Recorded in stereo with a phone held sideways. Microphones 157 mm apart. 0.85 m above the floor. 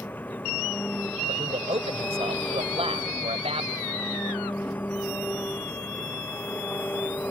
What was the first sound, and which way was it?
An engine running, 10° left (ahead or behind).